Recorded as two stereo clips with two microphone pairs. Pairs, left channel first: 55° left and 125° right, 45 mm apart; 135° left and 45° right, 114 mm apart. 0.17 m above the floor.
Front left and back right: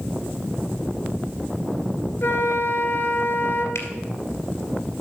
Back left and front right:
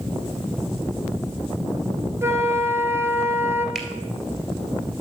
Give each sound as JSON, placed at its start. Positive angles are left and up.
{"t": 2.2, "sound": "a flute", "azimuth_deg": 20, "distance_m": 1.4}
{"t": 3.8, "sound": "a finger snap", "azimuth_deg": 45, "distance_m": 2.0}